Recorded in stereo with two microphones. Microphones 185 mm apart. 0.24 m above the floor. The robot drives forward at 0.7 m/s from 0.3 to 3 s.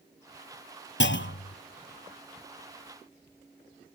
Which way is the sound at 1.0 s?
75° left (ahead or behind).